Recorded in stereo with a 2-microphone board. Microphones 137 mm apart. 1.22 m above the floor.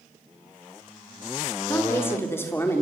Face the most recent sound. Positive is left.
turn(degrees=15)  # may be behind; listen again after turning